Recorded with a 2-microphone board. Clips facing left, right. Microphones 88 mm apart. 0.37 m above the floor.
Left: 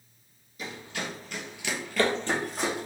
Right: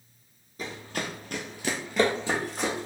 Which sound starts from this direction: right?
Running footsteps, at 0.6 s.